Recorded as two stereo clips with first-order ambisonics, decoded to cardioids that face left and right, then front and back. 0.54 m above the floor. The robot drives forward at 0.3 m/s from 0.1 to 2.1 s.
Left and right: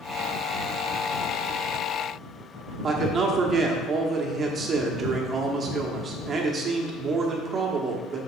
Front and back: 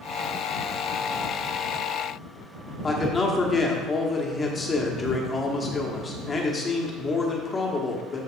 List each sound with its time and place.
2.8 s a man speaking: 60° right, 1.1 m